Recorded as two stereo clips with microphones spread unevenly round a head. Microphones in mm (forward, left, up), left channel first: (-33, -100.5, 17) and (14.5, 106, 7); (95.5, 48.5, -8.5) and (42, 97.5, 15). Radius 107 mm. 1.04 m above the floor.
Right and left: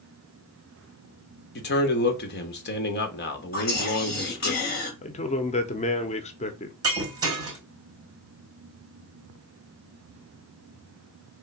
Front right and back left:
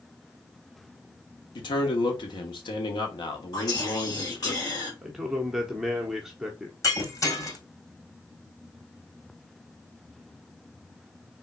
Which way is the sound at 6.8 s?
5° left.